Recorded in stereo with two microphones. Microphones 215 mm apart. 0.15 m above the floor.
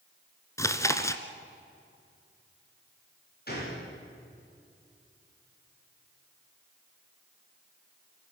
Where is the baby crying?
I don't hear a baby crying.